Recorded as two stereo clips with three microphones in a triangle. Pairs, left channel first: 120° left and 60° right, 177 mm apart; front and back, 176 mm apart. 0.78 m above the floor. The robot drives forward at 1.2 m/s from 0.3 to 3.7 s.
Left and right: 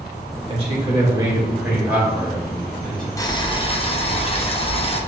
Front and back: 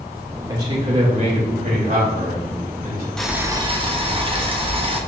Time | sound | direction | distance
0.5 | a man speaking | 110° right | 2.5 m
3.2 | boiling | 80° left | 0.9 m